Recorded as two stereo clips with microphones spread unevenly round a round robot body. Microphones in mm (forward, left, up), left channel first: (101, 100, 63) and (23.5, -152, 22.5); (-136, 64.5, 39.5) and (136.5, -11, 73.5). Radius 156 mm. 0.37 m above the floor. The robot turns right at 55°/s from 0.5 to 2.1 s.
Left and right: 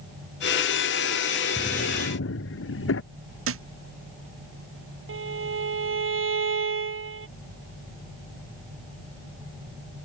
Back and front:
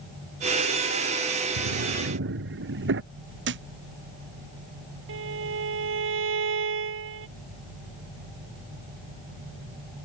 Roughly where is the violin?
Ahead right.